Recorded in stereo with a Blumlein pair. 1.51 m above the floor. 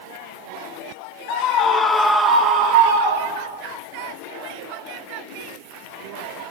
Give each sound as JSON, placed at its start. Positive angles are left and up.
{"t": 1.3, "sound": "a scream", "azimuth_deg": 45, "distance_m": 1.0}